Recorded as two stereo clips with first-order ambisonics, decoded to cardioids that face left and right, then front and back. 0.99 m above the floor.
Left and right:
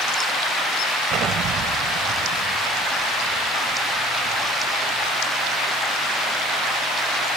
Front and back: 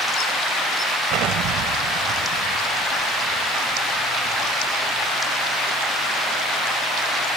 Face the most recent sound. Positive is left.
turn(degrees=-140)